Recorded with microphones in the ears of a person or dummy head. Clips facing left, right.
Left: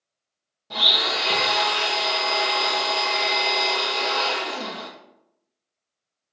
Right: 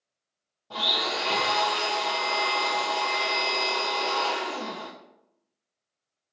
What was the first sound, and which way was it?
A blender, 30° left (ahead or behind).